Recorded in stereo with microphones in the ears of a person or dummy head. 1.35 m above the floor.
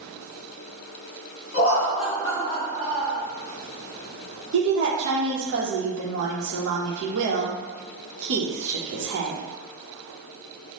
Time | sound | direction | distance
1.5 | laughter | 45° left (ahead or behind) | 1.3 m
4.5 | a woman speaking | 65° right (ahead or behind) | 0.9 m